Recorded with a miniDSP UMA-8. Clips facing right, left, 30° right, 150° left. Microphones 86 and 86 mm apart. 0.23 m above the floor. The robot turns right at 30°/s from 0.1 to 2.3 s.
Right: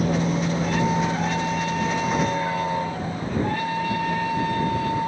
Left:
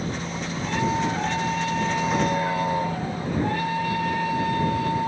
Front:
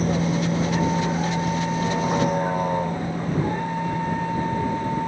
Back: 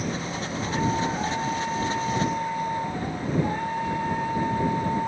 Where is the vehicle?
75° right; by 5.1 s 10° left.